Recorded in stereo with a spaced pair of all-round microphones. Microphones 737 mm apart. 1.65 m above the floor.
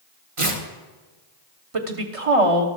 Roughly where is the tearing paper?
Right.